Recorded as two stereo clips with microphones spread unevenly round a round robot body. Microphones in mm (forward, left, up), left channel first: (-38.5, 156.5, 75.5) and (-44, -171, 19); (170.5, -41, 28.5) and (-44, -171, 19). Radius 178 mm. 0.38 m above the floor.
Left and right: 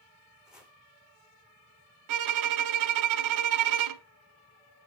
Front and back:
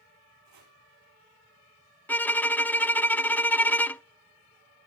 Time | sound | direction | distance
0.5 | chopping | straight behind | 5 m
2.1 | a violin | 50° right | 0.6 m